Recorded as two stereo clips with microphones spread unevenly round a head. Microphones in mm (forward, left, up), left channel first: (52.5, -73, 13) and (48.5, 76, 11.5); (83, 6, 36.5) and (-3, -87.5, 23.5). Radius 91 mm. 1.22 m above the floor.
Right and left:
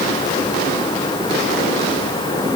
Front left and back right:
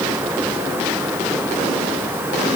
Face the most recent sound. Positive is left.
No sound to turn to.